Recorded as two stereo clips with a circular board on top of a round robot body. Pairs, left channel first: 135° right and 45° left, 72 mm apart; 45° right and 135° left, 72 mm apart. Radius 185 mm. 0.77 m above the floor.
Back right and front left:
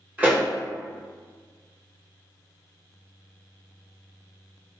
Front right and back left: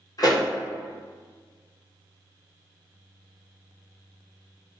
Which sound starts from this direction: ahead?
A pop, at 0.2 s.